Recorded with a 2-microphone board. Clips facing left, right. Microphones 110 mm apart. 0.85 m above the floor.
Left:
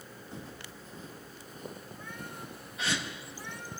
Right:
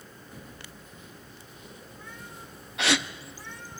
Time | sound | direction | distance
0.3 | footsteps | 25° left (ahead or behind) | 2.5 m
2.8 | a gasp | 75° right (ahead or behind) | 0.6 m